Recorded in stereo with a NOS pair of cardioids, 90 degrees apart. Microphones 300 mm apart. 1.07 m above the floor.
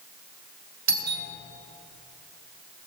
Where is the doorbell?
65° right, 2.5 m.